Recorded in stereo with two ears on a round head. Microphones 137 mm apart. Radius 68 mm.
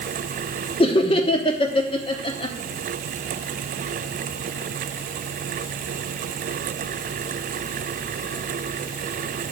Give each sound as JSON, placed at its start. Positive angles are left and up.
{"t": 0.8, "sound": "laughter", "side_deg": 35, "distance_m": 1.1}